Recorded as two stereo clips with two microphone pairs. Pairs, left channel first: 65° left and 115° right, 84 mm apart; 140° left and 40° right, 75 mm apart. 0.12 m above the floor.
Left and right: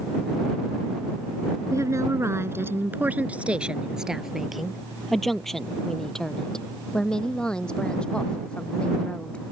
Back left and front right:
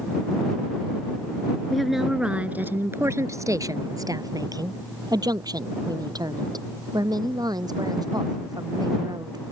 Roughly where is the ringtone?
No ringtone in this recording.